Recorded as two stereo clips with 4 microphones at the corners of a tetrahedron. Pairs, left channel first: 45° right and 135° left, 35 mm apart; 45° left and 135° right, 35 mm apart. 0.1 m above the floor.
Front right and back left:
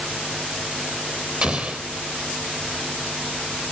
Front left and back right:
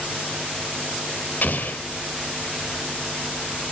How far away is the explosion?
About 1.3 m.